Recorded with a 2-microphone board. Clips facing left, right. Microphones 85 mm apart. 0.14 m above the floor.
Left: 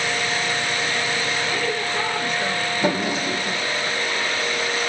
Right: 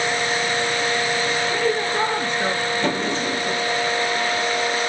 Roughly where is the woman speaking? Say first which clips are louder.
Right 3 dB; right.